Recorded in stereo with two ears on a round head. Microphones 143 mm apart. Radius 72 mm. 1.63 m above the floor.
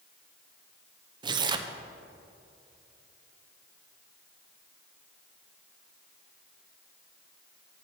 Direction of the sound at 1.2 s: 30° right (ahead or behind).